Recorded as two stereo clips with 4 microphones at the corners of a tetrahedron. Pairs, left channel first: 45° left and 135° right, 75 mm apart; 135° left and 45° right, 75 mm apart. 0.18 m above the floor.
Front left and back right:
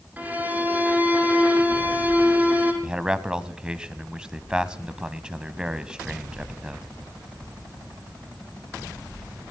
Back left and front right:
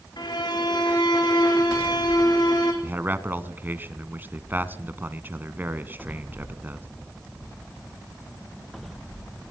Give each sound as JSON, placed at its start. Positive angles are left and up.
{"t": 0.2, "sound": "a violin", "azimuth_deg": 155, "distance_m": 3.0}
{"t": 2.8, "sound": "a man speaking", "azimuth_deg": -65, "distance_m": 1.1}